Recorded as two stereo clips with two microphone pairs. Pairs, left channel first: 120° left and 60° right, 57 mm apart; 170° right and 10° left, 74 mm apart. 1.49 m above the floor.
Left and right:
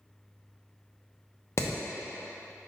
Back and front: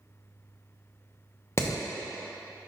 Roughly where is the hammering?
Behind left.